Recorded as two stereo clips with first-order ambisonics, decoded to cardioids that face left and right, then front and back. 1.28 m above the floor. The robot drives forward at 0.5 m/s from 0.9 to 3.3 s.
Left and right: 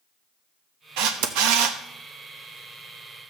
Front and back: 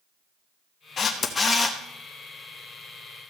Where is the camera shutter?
65° right, 1.0 m; by 1.8 s 90° right, 1.0 m.